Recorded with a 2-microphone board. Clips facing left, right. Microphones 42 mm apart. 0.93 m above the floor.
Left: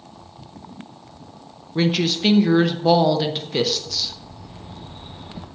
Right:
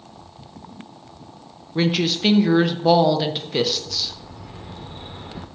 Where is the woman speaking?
5° right (ahead or behind), 0.6 m.